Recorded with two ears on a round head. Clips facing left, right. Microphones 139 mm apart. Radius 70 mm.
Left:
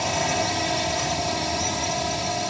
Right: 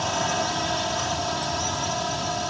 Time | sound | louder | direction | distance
0.0 | a drone | left 1 dB | 15° left (ahead or behind) | ?